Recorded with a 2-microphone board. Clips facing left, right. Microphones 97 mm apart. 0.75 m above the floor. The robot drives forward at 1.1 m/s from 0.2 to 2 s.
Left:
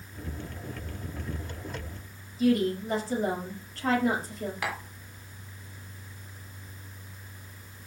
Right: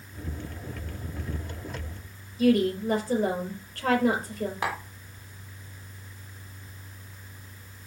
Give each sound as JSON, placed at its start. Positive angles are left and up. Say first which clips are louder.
{"t": 2.4, "sound": "a woman speaking", "louder": "right 2 dB", "side_deg": -55, "distance_m": 3.5}
{"t": 4.6, "sound": "tapping", "louder": "right 3 dB", "side_deg": -30, "distance_m": 1.5}